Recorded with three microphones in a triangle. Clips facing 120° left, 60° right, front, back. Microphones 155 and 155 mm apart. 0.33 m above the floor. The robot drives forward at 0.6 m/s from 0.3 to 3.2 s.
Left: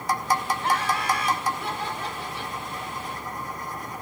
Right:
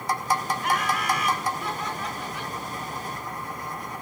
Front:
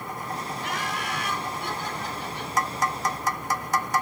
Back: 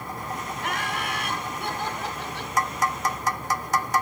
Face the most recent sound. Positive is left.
turn(degrees=175)